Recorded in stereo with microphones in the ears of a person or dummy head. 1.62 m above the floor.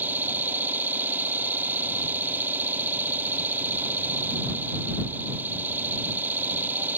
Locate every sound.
0.0 s an engine running: 15° right (ahead or behind)